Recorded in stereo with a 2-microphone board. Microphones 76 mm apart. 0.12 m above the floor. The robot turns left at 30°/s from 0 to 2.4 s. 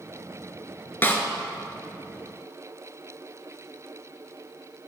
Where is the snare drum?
30° left (ahead or behind), 1.0 m; by 1.2 s 35° left (ahead or behind), 1.0 m.